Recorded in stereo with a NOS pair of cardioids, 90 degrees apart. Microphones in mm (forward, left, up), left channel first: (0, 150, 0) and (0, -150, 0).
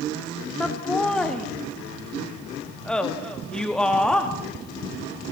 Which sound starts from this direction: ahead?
Laughter, at 0.6 s.